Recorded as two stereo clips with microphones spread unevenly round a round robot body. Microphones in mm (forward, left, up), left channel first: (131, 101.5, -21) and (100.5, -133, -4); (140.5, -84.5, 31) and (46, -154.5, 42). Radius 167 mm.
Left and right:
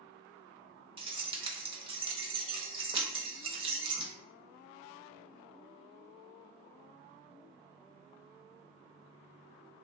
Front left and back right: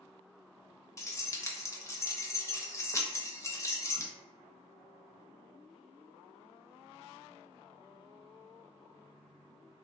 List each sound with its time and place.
1.0 s keys jangling: 30° right, 0.8 m